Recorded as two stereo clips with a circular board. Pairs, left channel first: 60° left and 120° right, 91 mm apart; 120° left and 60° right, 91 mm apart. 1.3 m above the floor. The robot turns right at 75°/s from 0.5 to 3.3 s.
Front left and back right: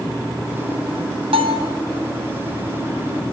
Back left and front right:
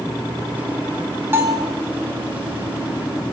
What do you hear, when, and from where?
1.3 s a bell: 125° right, 0.9 m; by 1.7 s 95° right, 0.9 m